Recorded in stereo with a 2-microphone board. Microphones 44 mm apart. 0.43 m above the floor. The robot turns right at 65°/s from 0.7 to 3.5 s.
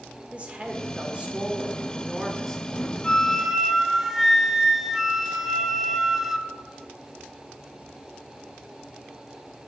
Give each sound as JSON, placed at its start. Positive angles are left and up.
{"t": 0.3, "sound": "a woman speaking", "side_deg": -25, "distance_m": 0.9}
{"t": 3.0, "sound": "a flute", "side_deg": 20, "distance_m": 0.5}